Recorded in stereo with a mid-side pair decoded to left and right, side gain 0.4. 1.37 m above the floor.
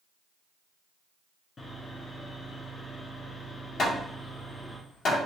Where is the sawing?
40° left, 1.7 m.